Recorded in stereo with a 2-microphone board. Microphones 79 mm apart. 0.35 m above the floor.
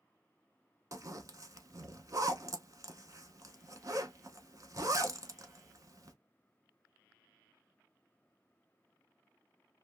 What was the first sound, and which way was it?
A zipper, 45° right (ahead or behind).